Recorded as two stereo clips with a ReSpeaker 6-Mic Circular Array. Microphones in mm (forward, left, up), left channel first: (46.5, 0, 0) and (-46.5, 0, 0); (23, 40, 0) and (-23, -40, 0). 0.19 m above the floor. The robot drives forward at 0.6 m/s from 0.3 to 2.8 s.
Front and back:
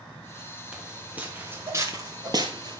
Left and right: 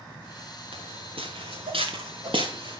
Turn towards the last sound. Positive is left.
turn(degrees=-150)